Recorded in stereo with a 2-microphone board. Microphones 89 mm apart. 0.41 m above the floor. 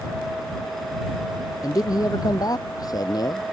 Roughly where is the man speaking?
Left.